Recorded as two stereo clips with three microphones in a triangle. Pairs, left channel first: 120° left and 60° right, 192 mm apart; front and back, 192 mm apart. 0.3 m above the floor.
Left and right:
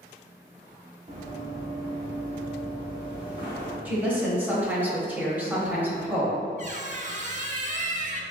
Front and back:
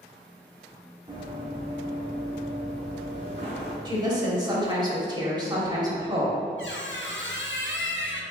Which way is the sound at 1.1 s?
115° right.